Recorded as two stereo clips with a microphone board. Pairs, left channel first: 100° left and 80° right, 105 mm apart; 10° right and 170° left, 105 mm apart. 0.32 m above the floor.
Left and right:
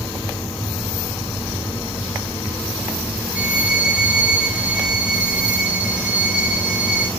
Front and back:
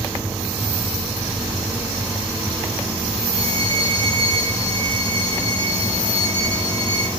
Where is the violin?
155° right, 3.5 m.